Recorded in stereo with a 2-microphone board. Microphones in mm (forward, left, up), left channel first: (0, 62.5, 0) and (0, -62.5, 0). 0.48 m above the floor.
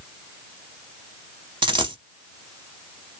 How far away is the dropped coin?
About 0.6 m.